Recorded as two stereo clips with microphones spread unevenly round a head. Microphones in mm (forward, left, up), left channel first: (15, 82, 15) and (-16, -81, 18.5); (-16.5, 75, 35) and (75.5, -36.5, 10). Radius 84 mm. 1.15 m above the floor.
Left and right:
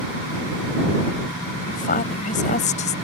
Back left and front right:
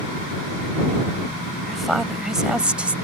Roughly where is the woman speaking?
Ahead left.